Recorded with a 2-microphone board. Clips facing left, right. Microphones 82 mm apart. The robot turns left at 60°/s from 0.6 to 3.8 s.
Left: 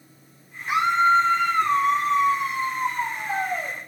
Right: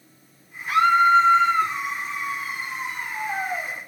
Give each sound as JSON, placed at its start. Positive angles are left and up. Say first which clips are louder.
{"t": 0.7, "sound": "a scream", "louder": "right 3 dB", "azimuth_deg": 170, "distance_m": 4.5}